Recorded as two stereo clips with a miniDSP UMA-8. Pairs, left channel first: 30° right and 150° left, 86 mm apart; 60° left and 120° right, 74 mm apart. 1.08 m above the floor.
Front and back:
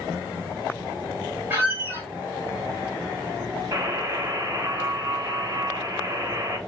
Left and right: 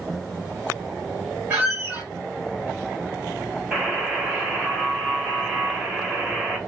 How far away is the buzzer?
About 1.0 m.